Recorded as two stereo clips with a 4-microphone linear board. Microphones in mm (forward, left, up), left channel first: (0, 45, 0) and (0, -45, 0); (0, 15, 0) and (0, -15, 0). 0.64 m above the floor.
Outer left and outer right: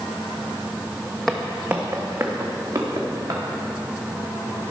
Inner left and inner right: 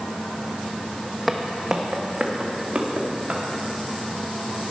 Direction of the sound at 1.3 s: 5° left (ahead or behind).